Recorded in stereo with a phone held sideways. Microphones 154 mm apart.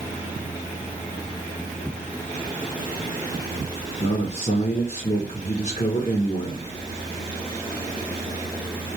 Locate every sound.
4.0 s a man speaking: 50° left (ahead or behind), 0.7 m